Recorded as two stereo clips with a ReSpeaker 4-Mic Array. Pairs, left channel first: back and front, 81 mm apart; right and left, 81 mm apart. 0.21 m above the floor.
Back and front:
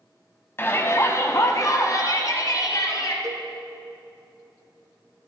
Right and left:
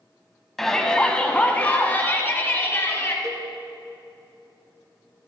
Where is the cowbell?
45° left, 1.1 m.